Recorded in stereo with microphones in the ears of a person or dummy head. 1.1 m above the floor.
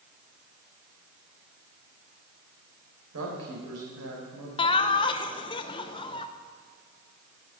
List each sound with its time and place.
3.1 s a woman speaking: 85° right, 4 m
4.6 s laughter: 20° left (ahead or behind), 0.6 m